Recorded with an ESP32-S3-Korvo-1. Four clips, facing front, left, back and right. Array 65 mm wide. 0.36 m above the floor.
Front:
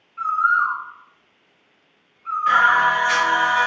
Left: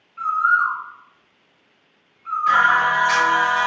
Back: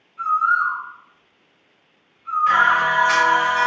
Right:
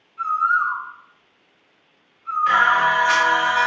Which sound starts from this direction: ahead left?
A bird, at 0.2 s.